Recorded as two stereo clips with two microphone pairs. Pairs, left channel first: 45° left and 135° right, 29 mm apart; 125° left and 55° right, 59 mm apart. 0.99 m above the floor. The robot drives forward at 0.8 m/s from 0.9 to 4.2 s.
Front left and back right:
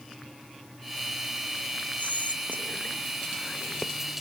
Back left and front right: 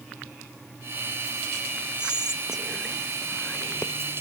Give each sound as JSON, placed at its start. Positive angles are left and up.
{"t": 2.0, "sound": "whispering", "azimuth_deg": 20, "distance_m": 1.6}